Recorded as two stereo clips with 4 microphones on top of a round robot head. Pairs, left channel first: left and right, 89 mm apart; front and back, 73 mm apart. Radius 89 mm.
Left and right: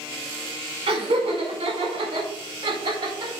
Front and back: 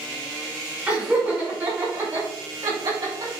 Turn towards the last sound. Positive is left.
turn(degrees=-130)